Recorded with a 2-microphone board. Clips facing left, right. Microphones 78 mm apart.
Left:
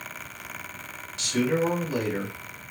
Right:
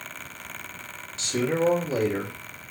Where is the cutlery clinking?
I don't hear cutlery clinking.